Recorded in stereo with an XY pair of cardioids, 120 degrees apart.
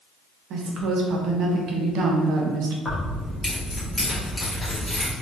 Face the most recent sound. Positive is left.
turn(degrees=15)